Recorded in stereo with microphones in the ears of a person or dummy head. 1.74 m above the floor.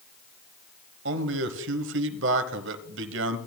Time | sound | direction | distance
1.1 | a man speaking | 75° right (ahead or behind) | 1.1 m